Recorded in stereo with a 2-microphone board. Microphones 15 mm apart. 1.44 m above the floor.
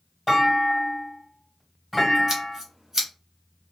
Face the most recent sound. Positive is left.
turn(degrees=-30)  # may be behind; listen again after turning